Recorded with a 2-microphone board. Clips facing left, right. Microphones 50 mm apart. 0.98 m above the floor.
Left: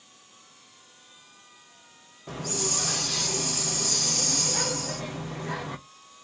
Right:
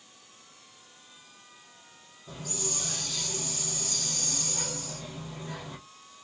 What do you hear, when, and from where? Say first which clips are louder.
2.3 s a hiss: left 6 dB; 80° left, 0.6 m